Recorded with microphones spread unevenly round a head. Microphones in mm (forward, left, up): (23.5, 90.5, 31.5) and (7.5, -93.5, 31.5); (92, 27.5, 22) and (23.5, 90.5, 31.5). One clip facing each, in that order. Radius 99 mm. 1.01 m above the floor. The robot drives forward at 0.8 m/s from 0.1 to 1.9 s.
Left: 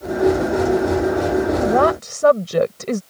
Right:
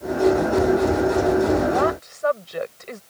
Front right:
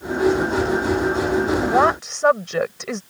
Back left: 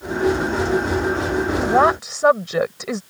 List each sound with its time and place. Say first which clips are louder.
1.6 s a woman speaking: left 4 dB, back left 5 dB; 50° left; by 3.0 s 55° left